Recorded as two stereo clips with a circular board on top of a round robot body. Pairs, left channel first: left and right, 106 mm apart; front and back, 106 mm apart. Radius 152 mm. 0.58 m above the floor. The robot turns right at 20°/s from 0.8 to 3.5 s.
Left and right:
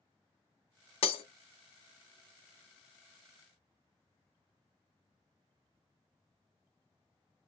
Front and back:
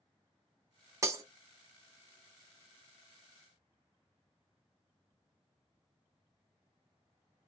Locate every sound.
1.0 s breaking glass: 115° left, 0.5 m; by 1.2 s 120° left, 0.5 m